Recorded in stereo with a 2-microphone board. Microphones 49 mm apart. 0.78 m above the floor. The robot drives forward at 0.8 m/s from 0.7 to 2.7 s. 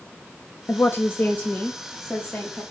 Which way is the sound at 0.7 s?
50° left (ahead or behind).